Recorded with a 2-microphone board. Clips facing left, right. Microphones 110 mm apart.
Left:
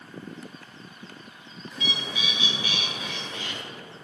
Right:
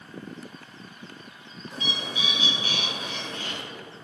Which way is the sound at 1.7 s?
35° right (ahead or behind).